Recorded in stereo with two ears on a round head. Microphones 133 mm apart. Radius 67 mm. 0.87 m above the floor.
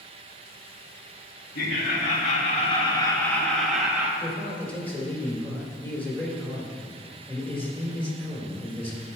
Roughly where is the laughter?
Left.